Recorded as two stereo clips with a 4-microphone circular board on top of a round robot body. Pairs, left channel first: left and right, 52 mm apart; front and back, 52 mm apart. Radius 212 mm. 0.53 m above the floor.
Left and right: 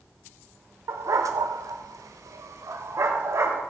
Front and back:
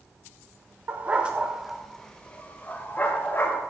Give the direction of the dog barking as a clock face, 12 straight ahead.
4 o'clock.